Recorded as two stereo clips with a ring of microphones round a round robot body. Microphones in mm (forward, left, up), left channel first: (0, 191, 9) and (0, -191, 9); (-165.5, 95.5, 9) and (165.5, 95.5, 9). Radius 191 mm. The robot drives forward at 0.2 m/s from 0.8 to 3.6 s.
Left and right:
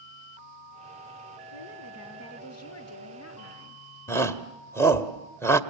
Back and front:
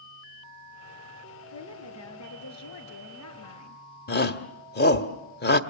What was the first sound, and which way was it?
A woman speaking, 140° left.